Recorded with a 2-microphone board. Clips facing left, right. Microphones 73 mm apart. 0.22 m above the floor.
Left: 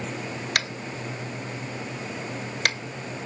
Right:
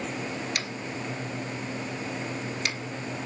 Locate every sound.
0.6 s tapping: 60° left (ahead or behind), 0.7 m